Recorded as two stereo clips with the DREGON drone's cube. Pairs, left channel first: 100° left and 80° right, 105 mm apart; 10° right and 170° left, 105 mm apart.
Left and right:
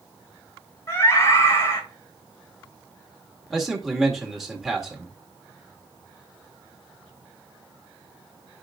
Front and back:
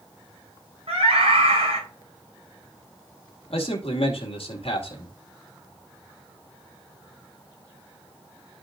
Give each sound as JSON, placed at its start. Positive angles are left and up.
{"t": 0.9, "sound": "a scream", "azimuth_deg": 160, "distance_m": 7.0}
{"t": 3.5, "sound": "a man speaking", "azimuth_deg": 10, "distance_m": 2.0}